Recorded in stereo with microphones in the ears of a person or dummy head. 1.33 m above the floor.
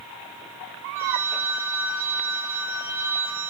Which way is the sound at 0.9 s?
10° right (ahead or behind).